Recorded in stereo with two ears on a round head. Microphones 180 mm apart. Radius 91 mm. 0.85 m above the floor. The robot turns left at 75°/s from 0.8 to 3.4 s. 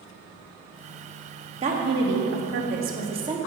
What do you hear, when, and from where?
1.6 s a woman speaking: 35° right, 1.2 m; by 3.4 s 165° right, 1.2 m